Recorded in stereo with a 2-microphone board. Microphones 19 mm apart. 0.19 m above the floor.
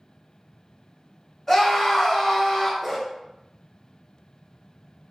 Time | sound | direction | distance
1.5 | a scream | 20° left (ahead or behind) | 1.6 m
2.8 | a dog barking | 10° left (ahead or behind) | 1.1 m